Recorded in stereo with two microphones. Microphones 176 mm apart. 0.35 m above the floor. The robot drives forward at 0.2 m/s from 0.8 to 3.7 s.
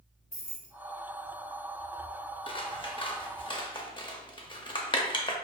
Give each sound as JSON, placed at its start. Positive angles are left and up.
{"t": 0.3, "sound": "keys jangling", "side_deg": 50, "distance_m": 1.4}
{"t": 2.5, "sound": "scissors", "side_deg": 30, "distance_m": 0.5}